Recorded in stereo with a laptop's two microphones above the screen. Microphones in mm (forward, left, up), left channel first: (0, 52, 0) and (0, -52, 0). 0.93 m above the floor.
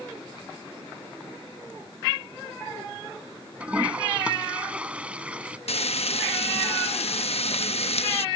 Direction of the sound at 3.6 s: 10° right (ahead or behind).